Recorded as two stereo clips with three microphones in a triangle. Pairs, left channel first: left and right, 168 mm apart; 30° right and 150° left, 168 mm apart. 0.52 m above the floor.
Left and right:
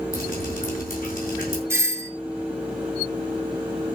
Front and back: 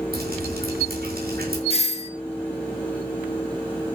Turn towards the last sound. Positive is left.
turn(degrees=-25)